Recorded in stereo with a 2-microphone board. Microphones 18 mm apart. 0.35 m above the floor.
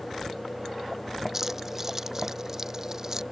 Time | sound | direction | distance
1.3 | keys jangling | 20° right (ahead or behind) | ?